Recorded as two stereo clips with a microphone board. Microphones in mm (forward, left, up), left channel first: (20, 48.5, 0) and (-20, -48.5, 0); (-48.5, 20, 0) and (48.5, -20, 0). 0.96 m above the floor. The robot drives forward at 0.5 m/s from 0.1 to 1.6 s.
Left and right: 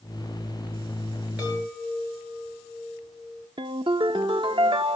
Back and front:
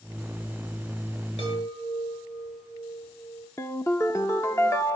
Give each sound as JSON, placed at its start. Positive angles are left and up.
{"t": 1.4, "sound": "a chime", "azimuth_deg": 170, "distance_m": 6.5}
{"t": 3.6, "sound": "a ringtone", "azimuth_deg": -140, "distance_m": 0.6}